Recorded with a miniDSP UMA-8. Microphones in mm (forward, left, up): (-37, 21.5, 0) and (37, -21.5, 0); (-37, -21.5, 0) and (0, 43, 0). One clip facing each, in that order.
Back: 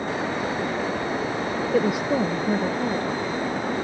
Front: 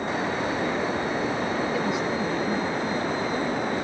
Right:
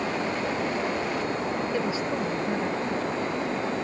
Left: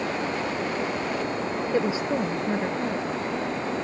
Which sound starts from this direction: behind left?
A woman speaking, at 1.7 s.